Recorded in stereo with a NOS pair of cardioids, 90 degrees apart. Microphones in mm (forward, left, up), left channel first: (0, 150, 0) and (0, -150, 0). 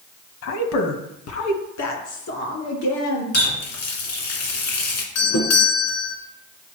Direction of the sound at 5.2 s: 65° left.